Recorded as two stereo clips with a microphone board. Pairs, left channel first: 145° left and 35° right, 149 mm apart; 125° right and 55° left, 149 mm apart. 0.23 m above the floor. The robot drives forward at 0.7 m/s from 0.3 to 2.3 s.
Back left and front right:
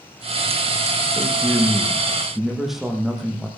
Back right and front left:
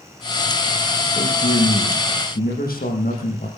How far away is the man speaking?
About 6.5 m.